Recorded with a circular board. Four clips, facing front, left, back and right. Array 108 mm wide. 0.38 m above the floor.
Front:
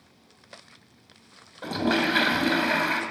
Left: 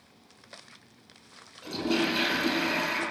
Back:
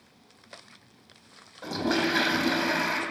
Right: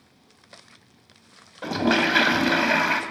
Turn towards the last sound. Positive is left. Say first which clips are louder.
# right 6 dB, front 2 dB
turn(degrees=-75)